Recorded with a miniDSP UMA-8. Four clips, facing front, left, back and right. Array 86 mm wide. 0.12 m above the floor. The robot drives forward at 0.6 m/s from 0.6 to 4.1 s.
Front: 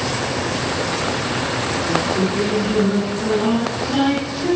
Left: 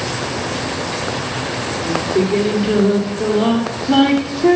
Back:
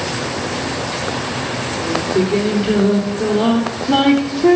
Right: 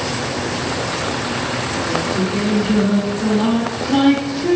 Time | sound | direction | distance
1.8 | singing | 130° left | 4 m